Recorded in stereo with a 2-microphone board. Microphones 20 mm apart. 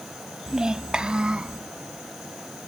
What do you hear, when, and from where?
0.5 s a child speaking: 30° right (ahead or behind), 0.7 m; by 1.6 s 55° right (ahead or behind), 1.2 m